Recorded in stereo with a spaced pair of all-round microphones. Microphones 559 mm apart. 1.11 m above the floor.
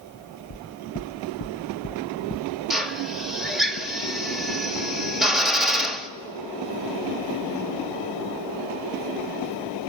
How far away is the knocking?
About 0.5 m.